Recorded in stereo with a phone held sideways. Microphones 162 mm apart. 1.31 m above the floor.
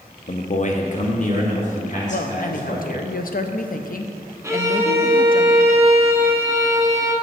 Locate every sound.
0.3 s a man speaking: 50° left (ahead or behind), 0.6 m
2.1 s a woman speaking: 60° left (ahead or behind), 0.6 m
4.4 s a violin: 15° right (ahead or behind), 0.8 m